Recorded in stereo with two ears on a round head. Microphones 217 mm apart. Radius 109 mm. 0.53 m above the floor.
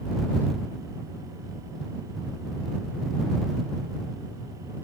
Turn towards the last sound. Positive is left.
No sound to turn to.